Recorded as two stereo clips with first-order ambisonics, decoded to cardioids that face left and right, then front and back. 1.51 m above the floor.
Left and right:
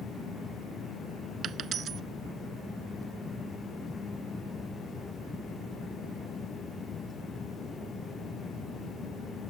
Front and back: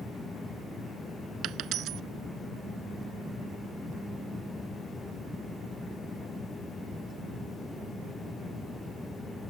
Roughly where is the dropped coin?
Behind right.